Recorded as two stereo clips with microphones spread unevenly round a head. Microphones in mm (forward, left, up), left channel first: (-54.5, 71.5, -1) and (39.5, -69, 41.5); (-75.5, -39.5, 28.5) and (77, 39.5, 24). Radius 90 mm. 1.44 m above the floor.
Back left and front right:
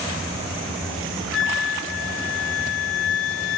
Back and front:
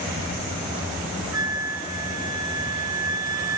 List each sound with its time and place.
1.3 s a flute: 100° left, 1.9 m